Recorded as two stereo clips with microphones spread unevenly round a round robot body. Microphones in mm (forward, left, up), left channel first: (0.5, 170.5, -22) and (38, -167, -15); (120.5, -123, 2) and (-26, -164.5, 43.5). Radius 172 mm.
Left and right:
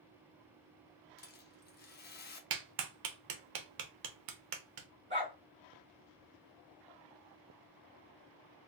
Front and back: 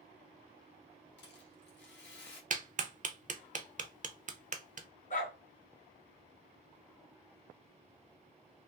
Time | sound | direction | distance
1.2 | a rattle | 35° left | 0.8 m
2.5 | a clap | 115° right | 0.7 m
5.1 | a dog barking | 15° right | 2 m